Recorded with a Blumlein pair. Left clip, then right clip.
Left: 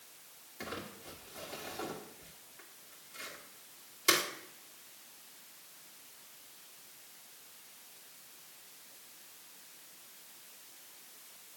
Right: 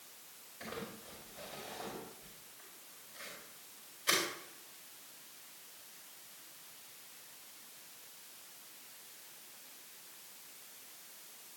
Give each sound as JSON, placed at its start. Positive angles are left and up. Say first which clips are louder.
{"t": 0.6, "sound": "crumpling", "louder": "left 2 dB", "azimuth_deg": 50, "distance_m": 2.5}